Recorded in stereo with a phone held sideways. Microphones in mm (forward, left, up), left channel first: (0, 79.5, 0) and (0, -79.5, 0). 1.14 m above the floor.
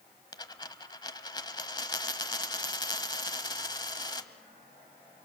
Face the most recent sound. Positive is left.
turn(degrees=25)  # may be behind; listen again after turning